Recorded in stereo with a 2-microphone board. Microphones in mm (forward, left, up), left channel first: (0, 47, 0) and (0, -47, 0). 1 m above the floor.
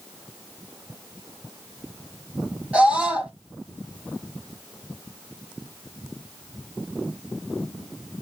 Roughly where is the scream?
Centre.